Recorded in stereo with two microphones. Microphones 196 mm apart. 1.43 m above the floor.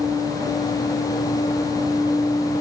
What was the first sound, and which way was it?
Only background noise.